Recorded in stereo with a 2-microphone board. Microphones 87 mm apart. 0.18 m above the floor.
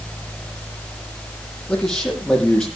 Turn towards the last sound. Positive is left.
turn(degrees=5)  # may be behind; listen again after turning